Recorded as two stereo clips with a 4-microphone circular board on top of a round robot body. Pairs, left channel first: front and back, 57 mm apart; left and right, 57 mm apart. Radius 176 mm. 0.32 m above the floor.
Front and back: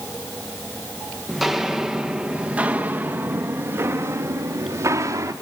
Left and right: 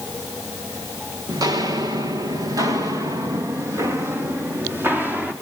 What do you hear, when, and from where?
1.3 s footsteps: 90° right, 3 m; by 5.3 s 150° right, 4 m